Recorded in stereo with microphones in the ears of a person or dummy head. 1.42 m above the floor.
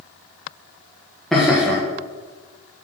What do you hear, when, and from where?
1.3 s laughter: 5° right (ahead or behind), 0.9 m